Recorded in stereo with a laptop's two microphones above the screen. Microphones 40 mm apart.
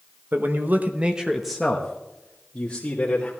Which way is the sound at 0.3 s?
55° right (ahead or behind).